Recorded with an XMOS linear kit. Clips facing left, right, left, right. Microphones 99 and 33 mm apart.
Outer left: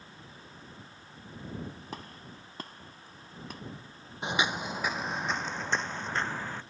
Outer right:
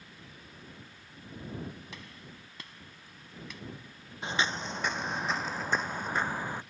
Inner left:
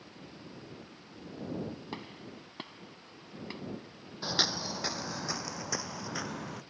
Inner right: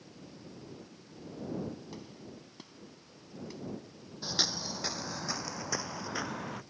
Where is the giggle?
I don't hear a giggle.